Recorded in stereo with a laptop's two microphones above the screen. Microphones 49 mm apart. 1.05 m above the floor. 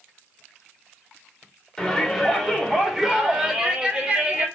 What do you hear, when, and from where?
1.8 s a shout: 10° left (ahead or behind), 3 m; by 4.5 s 25° right (ahead or behind), 3.5 m